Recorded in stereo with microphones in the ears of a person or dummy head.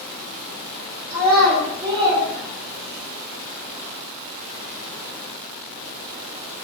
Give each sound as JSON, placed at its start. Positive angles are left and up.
{"t": 1.1, "sound": "a child speaking", "side_deg": -15, "distance_m": 0.9}